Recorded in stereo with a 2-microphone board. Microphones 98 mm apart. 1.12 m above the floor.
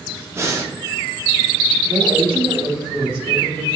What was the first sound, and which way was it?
Breathing, 30° right (ahead or behind).